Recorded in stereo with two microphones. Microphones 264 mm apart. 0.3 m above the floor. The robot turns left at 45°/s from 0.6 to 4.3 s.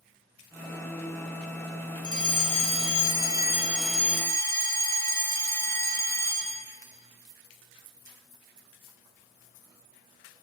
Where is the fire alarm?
30° right (ahead or behind), 2.5 m; by 6.7 s 10° left (ahead or behind), 2.5 m.